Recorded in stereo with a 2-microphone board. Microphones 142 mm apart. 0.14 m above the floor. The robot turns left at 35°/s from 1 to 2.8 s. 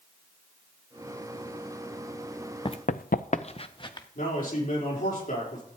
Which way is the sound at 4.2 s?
75° left (ahead or behind).